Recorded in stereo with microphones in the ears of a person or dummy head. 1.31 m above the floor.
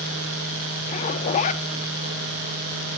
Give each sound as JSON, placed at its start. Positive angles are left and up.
{"t": 0.9, "sound": "a zipper", "side_deg": 40, "distance_m": 1.6}